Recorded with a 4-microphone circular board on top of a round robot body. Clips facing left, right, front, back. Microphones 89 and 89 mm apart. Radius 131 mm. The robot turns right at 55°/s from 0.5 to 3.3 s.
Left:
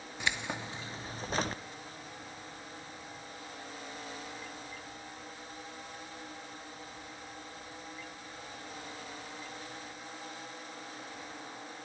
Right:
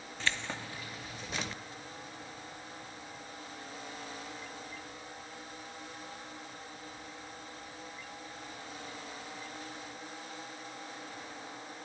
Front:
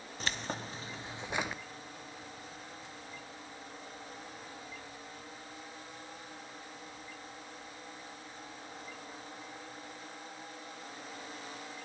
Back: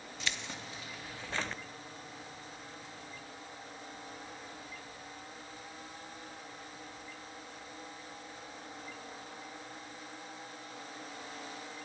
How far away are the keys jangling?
About 0.5 m.